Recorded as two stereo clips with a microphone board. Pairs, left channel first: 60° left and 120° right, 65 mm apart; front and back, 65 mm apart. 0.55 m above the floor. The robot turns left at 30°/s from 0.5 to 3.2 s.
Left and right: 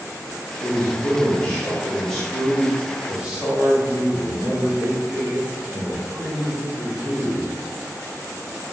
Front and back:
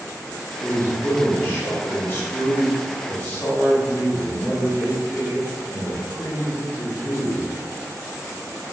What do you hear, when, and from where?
0.6 s a man speaking: 25° left, 1.4 m; by 7.5 s 50° right, 1.4 m